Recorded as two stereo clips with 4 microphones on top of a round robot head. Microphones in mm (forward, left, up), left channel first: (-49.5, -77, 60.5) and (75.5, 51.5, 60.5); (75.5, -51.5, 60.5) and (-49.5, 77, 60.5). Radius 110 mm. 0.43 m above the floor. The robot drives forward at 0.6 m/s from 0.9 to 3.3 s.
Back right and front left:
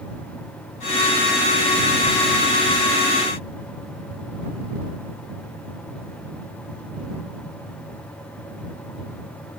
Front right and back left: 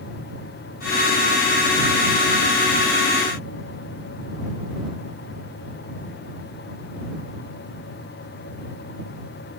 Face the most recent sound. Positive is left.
No sound to turn to.